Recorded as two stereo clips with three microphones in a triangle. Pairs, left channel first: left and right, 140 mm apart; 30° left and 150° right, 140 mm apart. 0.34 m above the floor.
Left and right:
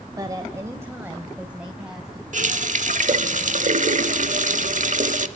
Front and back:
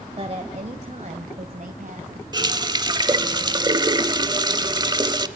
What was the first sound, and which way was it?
A woman speaking, 140° right.